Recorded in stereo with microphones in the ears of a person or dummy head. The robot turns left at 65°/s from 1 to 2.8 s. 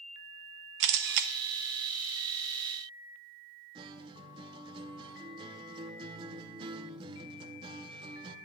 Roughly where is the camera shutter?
Right.